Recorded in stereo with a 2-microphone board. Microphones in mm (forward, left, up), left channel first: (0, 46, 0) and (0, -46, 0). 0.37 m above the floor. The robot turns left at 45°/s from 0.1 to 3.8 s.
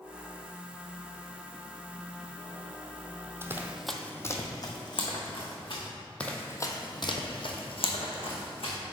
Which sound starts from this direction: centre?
Running footsteps, at 6.2 s.